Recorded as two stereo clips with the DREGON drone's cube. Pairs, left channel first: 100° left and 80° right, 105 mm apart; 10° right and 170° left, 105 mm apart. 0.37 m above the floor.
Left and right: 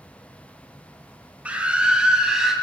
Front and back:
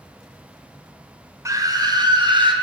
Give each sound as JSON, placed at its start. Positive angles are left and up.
{"t": 1.4, "sound": "a scream", "azimuth_deg": -150, "distance_m": 1.6}